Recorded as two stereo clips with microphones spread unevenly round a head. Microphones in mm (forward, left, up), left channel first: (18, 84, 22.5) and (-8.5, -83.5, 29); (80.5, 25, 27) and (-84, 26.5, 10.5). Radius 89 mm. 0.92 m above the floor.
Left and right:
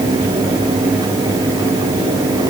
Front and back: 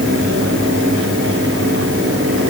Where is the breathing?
I don't hear breathing.